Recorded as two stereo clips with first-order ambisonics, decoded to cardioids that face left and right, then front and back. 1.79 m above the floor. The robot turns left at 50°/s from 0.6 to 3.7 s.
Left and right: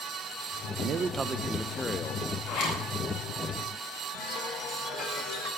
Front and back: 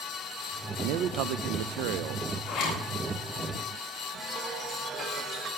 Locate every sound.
0.8 s a man speaking: 140° right, 0.5 m; by 2.3 s 145° left, 0.5 m
2.5 s a zipper: 65° left, 8 m; by 2.8 s 45° left, 8 m
4.1 s a chime: 110° left, 3 m